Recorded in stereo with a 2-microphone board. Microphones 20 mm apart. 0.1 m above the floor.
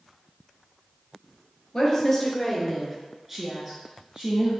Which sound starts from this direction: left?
A woman speaking, at 1.7 s.